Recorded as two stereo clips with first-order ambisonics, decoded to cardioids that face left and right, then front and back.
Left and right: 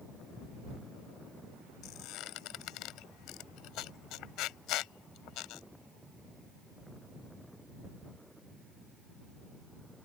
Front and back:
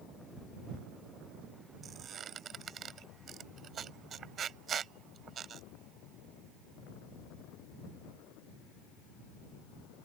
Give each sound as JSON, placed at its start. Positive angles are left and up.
{"t": 1.8, "sound": "a squeak", "azimuth_deg": 120}